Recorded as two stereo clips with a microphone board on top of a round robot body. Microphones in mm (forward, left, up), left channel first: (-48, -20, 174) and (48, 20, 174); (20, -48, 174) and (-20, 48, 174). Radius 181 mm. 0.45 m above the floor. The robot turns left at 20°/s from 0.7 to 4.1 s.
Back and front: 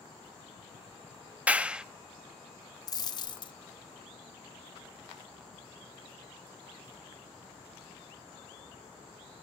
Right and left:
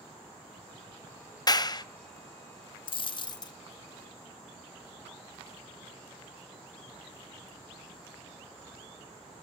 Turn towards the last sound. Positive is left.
turn(degrees=-130)